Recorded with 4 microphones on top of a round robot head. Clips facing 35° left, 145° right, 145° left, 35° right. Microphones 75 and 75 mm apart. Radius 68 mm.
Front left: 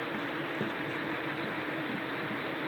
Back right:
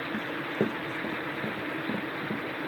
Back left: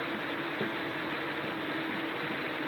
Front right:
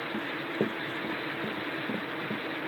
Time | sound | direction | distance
0.1 | running footsteps | 100° right | ?